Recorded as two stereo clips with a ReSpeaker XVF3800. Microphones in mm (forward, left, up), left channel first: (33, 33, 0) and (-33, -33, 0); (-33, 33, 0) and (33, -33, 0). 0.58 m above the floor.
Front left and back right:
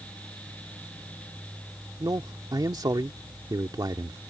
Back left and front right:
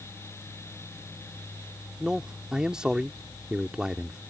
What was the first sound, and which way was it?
A man speaking, 125° right.